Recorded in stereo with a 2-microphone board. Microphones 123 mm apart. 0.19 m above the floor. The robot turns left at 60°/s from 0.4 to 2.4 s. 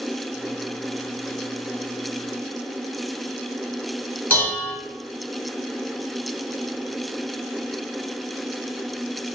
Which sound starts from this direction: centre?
Dishes clattering, at 4.3 s.